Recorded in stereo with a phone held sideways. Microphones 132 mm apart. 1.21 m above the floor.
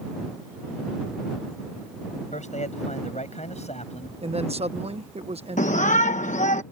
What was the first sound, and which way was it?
A man speaking, 70° left (ahead or behind).